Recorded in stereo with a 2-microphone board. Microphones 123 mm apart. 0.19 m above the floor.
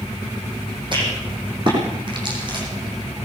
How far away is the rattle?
About 9.5 m.